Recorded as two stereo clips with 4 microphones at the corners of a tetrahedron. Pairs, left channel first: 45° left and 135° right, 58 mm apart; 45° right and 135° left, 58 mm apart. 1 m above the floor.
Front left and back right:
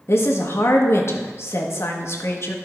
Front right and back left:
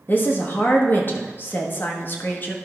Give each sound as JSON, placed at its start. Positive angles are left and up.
{"t": 0.1, "sound": "a woman speaking", "azimuth_deg": 5, "distance_m": 1.3}